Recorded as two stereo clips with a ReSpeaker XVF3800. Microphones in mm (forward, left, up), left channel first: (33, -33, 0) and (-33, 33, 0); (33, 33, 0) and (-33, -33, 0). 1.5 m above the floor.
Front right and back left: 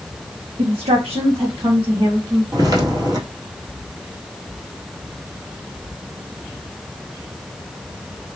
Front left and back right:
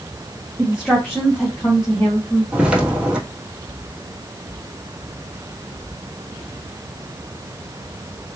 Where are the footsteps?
150° left, 1.8 m.